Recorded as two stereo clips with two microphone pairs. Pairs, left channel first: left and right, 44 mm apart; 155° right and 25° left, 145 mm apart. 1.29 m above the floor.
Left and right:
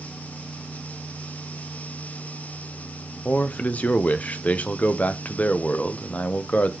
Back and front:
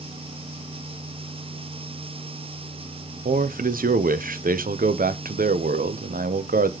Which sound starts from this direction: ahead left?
A man speaking, at 3.2 s.